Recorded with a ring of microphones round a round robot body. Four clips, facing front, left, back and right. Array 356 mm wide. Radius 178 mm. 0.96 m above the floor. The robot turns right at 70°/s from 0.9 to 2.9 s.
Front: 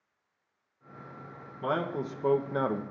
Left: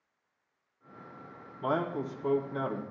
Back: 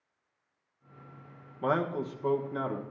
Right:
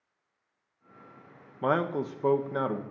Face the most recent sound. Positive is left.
turn(degrees=-20)